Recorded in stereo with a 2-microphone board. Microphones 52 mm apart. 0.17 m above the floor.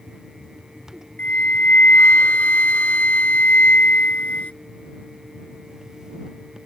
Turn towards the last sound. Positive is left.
turn(degrees=30)  # may be behind; listen again after turning